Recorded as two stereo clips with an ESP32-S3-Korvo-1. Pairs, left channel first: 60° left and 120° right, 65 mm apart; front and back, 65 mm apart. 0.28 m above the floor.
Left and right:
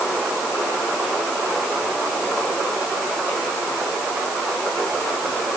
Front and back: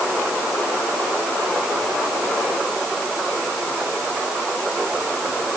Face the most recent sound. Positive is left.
No sound to turn to.